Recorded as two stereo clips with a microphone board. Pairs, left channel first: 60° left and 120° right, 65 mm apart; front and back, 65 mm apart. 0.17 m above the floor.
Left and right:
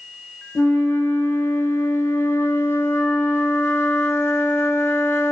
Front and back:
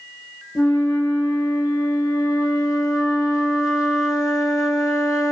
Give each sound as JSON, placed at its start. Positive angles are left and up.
{"t": 0.6, "sound": "a flute", "azimuth_deg": 15, "distance_m": 0.7}